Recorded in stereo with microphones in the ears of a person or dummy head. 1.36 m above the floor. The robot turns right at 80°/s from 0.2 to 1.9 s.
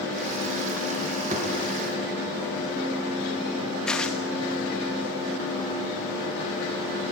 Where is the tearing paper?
10° left (ahead or behind), 1.2 m.